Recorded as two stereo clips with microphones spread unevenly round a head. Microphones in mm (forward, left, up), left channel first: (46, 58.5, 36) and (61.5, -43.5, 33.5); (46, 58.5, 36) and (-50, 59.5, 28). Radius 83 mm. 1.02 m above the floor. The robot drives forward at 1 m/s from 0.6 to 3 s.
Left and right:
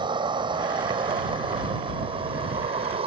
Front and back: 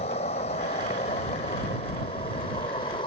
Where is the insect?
40° right; by 3.1 s 55° right.